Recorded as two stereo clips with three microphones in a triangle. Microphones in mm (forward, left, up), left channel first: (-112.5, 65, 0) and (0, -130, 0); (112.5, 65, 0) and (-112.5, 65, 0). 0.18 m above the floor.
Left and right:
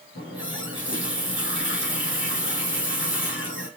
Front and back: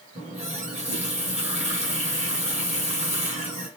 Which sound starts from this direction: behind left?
A running tap, at 0.1 s.